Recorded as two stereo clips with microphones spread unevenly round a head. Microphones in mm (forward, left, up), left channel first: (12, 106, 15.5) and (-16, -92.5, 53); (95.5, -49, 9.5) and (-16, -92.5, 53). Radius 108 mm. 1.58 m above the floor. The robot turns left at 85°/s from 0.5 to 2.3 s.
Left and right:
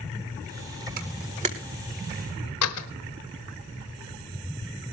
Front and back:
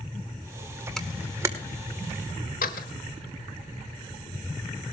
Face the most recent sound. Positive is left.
turn(degrees=75)